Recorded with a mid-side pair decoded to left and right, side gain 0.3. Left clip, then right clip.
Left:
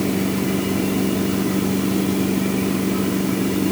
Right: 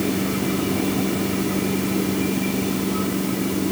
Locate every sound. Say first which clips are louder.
0.0 s a machine running: left 1 dB; 35° left